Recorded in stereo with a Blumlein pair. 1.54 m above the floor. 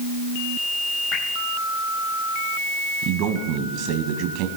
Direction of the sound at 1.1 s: 35° left.